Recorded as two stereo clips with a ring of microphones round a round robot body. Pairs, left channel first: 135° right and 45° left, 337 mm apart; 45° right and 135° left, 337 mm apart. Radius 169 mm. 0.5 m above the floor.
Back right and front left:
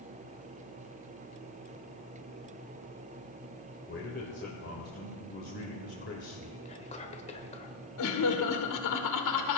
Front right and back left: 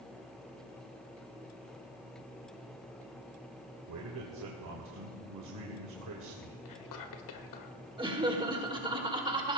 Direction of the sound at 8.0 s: 150° right.